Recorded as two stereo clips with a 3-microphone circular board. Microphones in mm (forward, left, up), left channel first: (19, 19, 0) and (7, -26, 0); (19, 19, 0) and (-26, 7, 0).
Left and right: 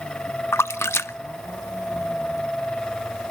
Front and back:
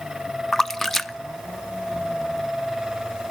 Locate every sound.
0.5 s a splash: 100° left, 0.7 m